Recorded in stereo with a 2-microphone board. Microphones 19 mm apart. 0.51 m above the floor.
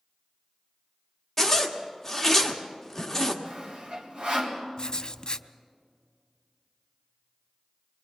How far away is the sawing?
About 3.5 m.